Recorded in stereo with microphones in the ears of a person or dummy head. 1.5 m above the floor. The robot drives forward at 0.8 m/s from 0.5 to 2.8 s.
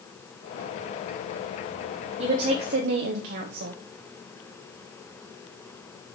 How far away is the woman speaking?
About 1.2 m.